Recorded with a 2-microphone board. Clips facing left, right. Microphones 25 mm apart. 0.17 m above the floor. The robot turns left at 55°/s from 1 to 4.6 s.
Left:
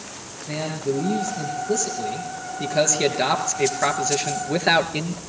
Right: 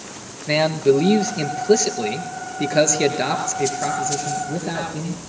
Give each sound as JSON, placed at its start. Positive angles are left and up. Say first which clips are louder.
{"t": 0.5, "sound": "a man speaking", "louder": "right 9 dB", "azimuth_deg": -55, "distance_m": 3.0}